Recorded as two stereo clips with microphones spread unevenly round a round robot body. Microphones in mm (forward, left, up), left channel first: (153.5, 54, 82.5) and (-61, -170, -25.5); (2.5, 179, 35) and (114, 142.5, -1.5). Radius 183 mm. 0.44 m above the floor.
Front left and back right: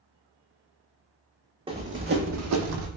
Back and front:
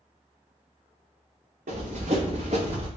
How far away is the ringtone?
No ringtone in this recording.